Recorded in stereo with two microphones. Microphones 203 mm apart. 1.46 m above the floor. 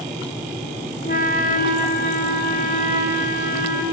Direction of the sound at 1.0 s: 45° left (ahead or behind).